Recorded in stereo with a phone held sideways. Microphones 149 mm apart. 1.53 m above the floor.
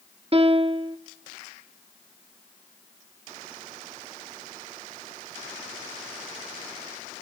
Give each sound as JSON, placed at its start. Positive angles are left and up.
{"t": 0.3, "sound": "a piano", "side_deg": -40, "distance_m": 1.4}